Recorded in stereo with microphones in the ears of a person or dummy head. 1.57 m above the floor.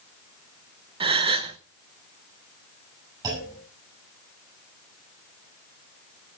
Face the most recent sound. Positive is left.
turn(degrees=-20)  # may be behind; listen again after turning